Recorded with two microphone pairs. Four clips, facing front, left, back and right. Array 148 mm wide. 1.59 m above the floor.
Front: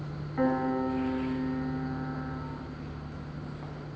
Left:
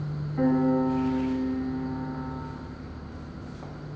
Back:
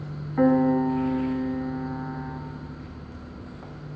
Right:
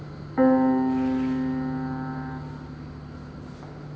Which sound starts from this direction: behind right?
A piano, at 0.4 s.